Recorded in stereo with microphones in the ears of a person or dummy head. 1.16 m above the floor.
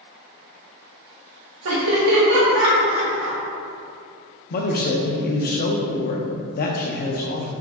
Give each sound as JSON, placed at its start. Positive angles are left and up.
{"t": 1.6, "sound": "laughter", "side_deg": -85, "distance_m": 1.8}
{"t": 4.5, "sound": "a man speaking", "side_deg": 50, "distance_m": 0.6}